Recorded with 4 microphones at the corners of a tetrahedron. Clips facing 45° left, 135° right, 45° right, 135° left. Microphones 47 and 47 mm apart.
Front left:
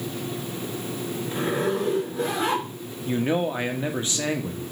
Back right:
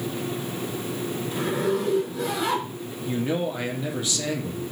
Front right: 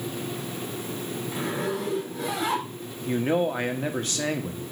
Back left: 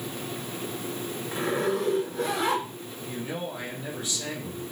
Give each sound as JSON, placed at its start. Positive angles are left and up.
{"t": 1.3, "sound": "a zipper", "azimuth_deg": 95, "distance_m": 3.5}
{"t": 3.1, "sound": "a man speaking", "azimuth_deg": -10, "distance_m": 1.1}